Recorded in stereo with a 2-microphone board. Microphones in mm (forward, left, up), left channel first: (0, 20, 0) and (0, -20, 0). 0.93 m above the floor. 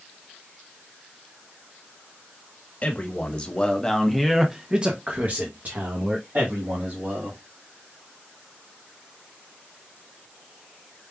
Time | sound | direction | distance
2.8 | a man speaking | 35° left (ahead or behind) | 1.3 m